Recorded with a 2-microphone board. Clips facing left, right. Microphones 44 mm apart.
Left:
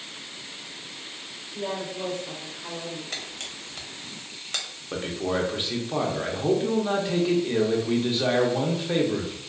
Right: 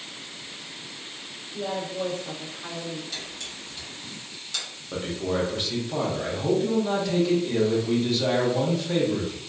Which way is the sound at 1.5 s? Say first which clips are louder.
Right 2 dB; 60° right (ahead or behind).